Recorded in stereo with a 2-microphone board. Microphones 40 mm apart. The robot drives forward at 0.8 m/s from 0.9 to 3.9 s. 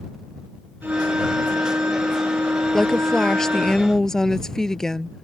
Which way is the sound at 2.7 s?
15° left (ahead or behind).